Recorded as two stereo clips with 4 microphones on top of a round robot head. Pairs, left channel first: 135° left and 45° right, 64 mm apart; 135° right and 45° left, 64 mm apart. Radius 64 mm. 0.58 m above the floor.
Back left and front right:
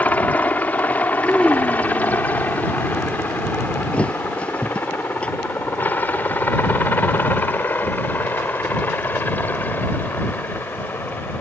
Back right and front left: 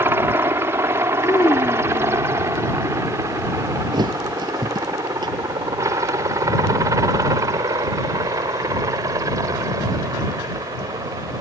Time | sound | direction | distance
0.0 | a helicopter | 80° left | ?
1.2 | a child speaking | 150° right | ?
3.9 | a thud | 60° left | ?